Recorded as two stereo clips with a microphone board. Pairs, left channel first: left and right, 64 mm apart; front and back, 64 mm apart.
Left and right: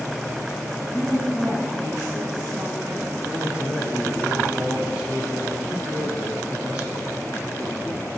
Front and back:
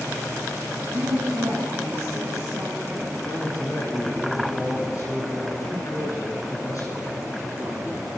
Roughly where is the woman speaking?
Behind.